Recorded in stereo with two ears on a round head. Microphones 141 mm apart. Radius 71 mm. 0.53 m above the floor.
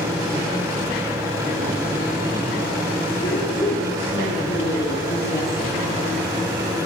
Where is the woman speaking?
55° left (ahead or behind), 7.5 m; by 5.8 s 65° left (ahead or behind), 5 m.